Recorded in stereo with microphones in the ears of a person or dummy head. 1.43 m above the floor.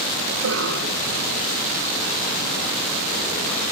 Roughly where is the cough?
Right.